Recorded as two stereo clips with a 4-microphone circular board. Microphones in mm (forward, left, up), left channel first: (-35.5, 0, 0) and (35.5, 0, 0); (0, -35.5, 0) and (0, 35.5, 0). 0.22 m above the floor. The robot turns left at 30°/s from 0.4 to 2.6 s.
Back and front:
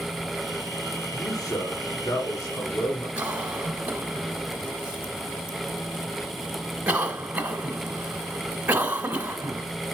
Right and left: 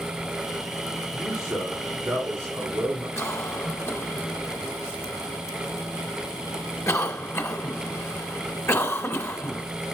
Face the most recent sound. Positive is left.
turn(degrees=-65)